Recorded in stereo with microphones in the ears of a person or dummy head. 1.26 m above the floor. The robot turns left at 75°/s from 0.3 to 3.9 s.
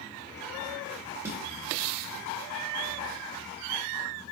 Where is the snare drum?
20° right (ahead or behind), 1.0 m; by 1.4 s 5° right (ahead or behind), 1.0 m.